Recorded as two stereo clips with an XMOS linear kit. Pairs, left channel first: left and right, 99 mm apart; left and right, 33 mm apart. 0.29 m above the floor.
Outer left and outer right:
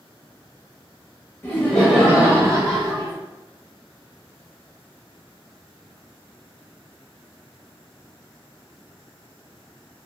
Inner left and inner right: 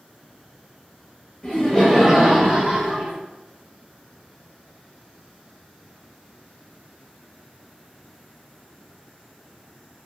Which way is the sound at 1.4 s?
20° left (ahead or behind).